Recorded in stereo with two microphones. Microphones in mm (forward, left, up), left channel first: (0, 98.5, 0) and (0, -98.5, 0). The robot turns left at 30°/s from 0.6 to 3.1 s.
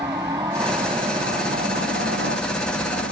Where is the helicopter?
20° right; by 3.1 s 95° right.